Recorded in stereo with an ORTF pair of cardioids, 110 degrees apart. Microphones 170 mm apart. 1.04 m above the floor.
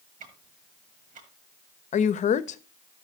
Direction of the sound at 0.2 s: 45° right.